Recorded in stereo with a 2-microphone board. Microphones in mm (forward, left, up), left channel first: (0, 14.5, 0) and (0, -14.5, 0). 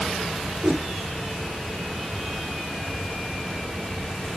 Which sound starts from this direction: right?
A whoosh, at 0.6 s.